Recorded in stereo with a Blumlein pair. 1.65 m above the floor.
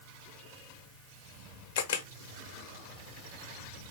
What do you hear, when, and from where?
1.8 s a camera shutter: 50° left, 1.0 m